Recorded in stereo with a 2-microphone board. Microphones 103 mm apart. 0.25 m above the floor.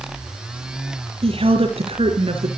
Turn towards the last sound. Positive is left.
turn(degrees=-65)  # may be behind; listen again after turning